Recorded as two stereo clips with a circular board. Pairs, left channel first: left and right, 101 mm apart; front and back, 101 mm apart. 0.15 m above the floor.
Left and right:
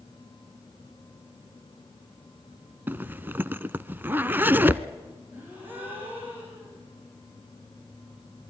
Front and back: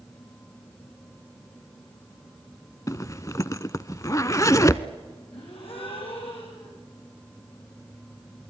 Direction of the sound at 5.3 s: 20° right.